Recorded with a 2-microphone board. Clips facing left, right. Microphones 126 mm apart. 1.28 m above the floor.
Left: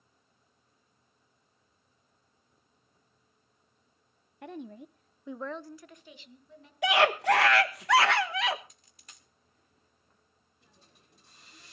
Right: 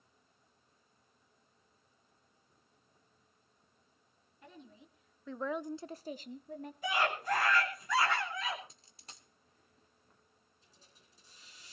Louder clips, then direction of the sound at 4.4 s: Left 13 dB; 70° left (ahead or behind).